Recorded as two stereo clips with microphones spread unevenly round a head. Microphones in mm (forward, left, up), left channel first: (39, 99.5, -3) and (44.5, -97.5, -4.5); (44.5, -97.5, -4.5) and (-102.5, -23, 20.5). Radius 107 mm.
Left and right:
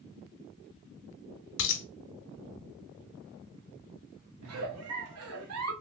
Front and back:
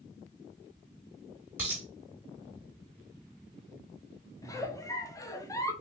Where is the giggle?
100° right, 0.8 m.